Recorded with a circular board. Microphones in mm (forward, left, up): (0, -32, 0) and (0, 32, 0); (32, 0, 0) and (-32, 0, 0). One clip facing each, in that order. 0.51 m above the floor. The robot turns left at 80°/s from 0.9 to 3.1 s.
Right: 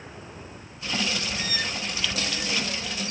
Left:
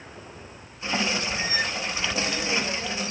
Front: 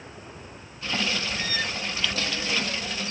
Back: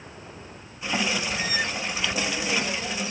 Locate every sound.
Only background noise.